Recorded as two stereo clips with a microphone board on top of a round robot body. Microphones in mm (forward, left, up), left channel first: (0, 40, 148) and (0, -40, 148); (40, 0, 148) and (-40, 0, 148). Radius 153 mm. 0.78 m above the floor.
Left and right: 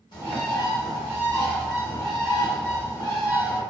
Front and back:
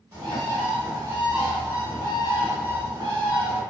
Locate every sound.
0.1 s a bird: 125° left, 0.9 m